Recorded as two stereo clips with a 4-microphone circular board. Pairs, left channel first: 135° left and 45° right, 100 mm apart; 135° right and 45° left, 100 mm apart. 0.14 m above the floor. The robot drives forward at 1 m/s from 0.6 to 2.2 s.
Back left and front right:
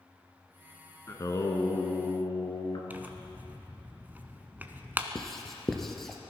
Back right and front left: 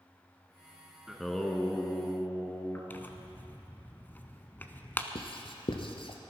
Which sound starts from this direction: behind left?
Singing, at 1.1 s.